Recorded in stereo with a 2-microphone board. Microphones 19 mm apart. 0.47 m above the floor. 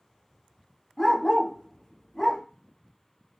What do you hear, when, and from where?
1.0 s a dog barking: 20° left (ahead or behind), 1.8 m